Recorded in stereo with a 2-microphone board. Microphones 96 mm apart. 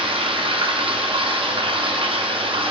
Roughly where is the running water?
Right.